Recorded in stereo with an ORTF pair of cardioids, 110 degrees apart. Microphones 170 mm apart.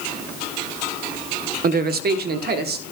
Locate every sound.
1.6 s a man speaking: 60° right, 0.8 m; by 2.8 s 70° right, 1.5 m